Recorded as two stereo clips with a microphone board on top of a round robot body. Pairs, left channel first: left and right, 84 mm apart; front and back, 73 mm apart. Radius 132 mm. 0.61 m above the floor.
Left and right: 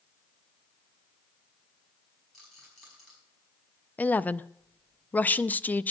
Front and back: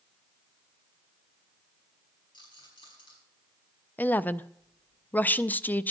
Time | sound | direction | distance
2.3 | a rattle | straight ahead | 5.5 m
4.0 | a woman speaking | 40° left | 0.6 m